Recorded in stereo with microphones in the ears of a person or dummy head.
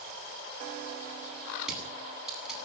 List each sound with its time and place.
1.6 s crushing: 5° right (ahead or behind), 9 m